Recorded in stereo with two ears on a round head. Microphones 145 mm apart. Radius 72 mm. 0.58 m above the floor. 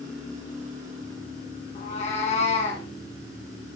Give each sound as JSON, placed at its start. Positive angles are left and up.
{"t": 1.8, "sound": "a cat meowing", "side_deg": 40, "distance_m": 3.5}